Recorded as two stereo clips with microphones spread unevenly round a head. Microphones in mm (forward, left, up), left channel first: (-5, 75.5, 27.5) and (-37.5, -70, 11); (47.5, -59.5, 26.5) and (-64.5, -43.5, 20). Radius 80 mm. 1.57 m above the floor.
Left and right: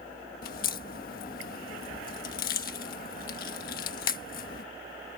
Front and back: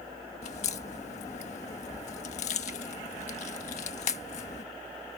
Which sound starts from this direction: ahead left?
A crack, at 0.4 s.